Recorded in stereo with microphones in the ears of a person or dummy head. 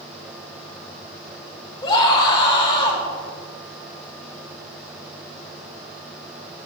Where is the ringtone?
I don't hear a ringtone.